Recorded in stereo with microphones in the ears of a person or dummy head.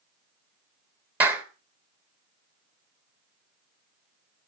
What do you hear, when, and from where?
1.2 s a clap: 5° right (ahead or behind), 1.4 m